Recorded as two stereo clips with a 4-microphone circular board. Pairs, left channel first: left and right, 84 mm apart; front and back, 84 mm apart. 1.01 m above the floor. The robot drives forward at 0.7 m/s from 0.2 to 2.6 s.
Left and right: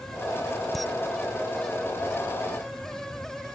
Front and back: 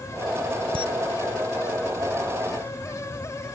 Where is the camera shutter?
Straight behind.